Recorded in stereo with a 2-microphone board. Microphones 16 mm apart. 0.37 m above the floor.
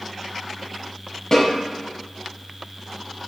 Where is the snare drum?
40° left (ahead or behind), 1.0 m.